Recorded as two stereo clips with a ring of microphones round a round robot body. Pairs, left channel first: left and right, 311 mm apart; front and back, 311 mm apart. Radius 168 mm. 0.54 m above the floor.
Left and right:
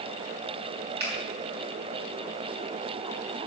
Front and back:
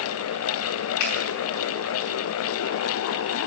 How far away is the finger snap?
About 6 m.